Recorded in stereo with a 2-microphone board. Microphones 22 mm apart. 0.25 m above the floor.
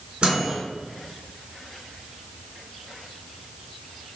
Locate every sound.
0.2 s a microwave: 45° right (ahead or behind), 3 m